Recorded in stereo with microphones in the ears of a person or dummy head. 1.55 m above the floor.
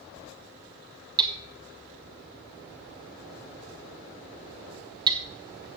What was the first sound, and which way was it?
Hammering, 20° right (ahead or behind).